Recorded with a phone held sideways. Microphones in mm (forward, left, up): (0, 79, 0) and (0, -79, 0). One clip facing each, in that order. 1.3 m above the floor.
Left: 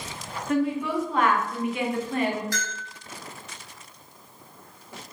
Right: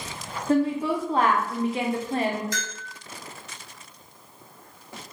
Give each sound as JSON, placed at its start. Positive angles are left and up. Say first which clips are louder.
{"t": 0.5, "sound": "a woman speaking", "louder": "right 2 dB", "side_deg": -30, "distance_m": 0.6}
{"t": 2.5, "sound": "a bell", "louder": "left 1 dB", "side_deg": -20, "distance_m": 1.2}